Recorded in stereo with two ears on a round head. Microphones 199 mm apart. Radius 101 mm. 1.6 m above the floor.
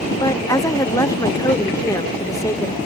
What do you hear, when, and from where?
0.2 s a woman speaking: 15° left (ahead or behind)